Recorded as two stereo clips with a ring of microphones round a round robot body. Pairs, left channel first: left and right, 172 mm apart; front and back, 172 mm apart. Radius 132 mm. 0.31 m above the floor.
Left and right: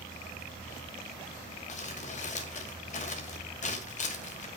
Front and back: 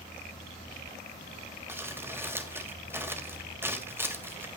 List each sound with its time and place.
1.7 s crumpling: 110° left, 2 m